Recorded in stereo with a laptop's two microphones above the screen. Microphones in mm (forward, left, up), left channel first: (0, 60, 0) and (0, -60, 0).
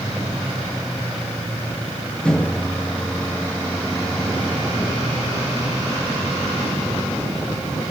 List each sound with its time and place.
2.2 s a microwave: 10° left (ahead or behind), 0.6 m